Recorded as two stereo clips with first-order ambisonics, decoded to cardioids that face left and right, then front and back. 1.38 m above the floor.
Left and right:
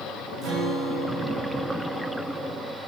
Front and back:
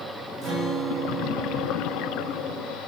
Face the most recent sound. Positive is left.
turn(degrees=-140)